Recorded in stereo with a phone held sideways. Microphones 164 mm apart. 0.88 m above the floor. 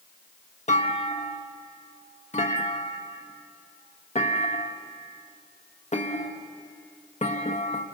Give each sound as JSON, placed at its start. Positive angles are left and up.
{"t": 0.7, "sound": "a clunk", "side_deg": 45, "distance_m": 1.3}